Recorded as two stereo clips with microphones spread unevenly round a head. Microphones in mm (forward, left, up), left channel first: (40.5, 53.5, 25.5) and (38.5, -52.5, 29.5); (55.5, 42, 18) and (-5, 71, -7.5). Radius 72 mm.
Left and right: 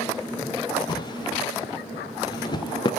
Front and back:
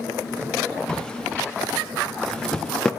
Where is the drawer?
40° left, 0.7 m.